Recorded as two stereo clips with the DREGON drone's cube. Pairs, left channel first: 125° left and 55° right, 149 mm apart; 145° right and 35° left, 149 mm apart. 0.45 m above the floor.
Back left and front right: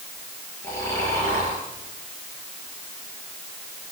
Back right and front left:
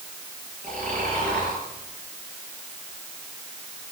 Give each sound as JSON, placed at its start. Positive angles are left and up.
{"t": 0.6, "sound": "snoring", "azimuth_deg": 55, "distance_m": 7.0}